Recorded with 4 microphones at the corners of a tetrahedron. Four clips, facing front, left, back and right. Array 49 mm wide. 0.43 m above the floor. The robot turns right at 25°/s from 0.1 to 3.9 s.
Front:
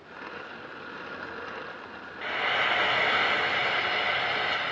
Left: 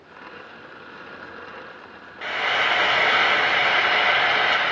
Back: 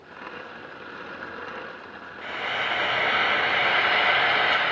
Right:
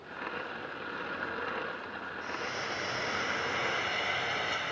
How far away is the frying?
About 0.5 m.